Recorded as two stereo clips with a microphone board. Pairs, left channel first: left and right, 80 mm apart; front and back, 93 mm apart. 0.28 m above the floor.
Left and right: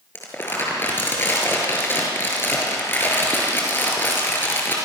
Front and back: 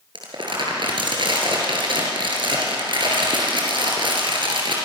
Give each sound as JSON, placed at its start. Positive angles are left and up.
{"t": 0.1, "sound": "crumpling", "azimuth_deg": 155, "distance_m": 5.5}